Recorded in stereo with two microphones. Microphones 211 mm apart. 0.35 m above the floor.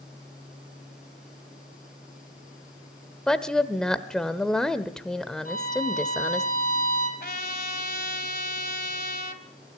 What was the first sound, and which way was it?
A woman speaking, 5° left (ahead or behind).